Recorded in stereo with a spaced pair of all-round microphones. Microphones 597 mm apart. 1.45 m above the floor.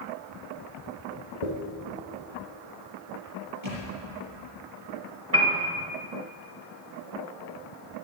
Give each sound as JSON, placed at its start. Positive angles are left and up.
{"t": 1.4, "sound": "a dropped coin", "side_deg": 60, "distance_m": 2.5}
{"t": 3.6, "sound": "a thud", "side_deg": -45, "distance_m": 5.0}
{"t": 5.3, "sound": "a piano", "side_deg": -20, "distance_m": 2.0}